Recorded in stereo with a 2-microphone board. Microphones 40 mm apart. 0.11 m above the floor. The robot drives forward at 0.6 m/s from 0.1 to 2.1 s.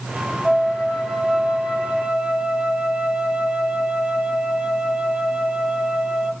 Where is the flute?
20° right (ahead or behind), 3 m; by 6.3 s 30° right (ahead or behind), 2.0 m.